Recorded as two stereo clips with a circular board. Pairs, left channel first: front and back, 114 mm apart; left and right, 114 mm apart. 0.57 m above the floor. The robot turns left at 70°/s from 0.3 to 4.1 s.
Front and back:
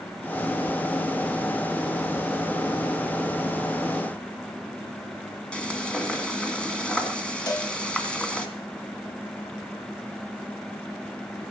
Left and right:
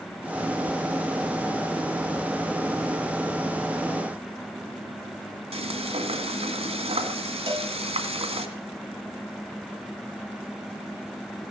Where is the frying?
80° right, 1.7 m.